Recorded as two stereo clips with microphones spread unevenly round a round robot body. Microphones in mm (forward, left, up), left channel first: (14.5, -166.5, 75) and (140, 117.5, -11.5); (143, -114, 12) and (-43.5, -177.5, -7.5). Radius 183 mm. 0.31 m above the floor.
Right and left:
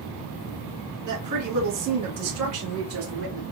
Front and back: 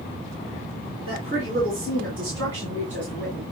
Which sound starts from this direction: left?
A woman speaking, at 1.1 s.